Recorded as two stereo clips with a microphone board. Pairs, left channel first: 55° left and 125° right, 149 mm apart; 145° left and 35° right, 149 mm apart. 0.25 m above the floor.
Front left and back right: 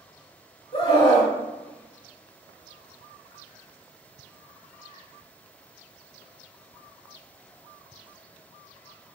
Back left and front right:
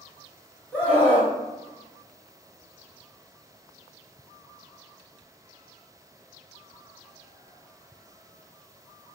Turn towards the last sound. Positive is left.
turn(degrees=70)